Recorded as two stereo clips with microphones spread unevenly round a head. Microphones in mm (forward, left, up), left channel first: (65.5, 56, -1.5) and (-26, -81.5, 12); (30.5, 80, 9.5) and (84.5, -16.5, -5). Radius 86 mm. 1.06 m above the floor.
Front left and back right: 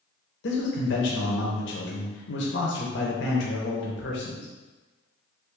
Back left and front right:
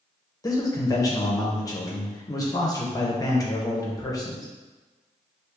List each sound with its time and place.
0.4 s a man speaking: 60° left, 0.9 m